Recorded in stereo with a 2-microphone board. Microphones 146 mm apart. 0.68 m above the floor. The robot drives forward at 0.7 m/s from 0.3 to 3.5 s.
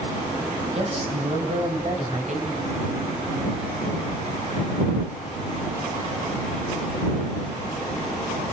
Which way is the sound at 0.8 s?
40° right (ahead or behind).